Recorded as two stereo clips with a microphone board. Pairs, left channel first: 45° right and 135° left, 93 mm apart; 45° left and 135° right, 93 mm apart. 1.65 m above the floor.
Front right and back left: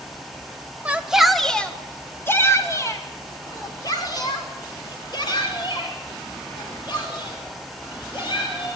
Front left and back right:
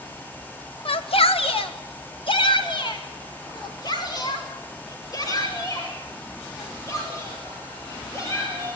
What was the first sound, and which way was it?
A shout, 60° left.